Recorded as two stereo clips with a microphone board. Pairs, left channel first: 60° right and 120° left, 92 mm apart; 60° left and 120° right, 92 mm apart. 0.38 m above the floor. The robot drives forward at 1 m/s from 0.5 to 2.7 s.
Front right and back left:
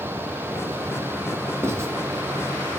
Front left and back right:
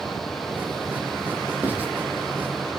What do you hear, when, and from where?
1.6 s writing: 175° left, 2 m